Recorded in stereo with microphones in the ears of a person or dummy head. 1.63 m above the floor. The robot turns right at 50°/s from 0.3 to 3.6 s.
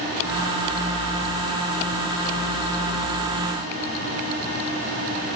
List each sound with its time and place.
Only background noise.